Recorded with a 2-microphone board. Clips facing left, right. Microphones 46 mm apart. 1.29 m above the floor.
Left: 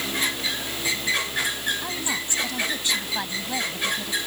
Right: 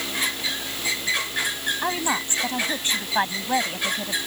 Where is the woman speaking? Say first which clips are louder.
Right 4 dB; 35° right (ahead or behind).